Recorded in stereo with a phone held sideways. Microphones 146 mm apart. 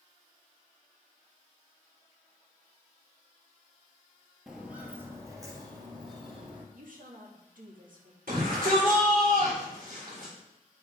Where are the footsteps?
5° right (ahead or behind), 1.5 m; by 6.6 s 40° right (ahead or behind), 2.5 m.